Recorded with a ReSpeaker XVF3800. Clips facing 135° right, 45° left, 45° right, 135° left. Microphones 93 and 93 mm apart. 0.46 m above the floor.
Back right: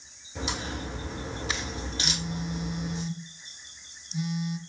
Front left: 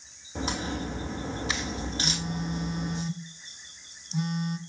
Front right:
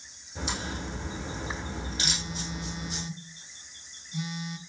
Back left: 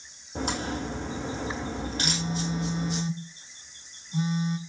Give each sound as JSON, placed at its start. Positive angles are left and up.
{"t": 0.3, "sound": "a crack", "azimuth_deg": 95, "distance_m": 3.5}
{"t": 2.0, "sound": "a phone buzzing", "azimuth_deg": 85, "distance_m": 0.9}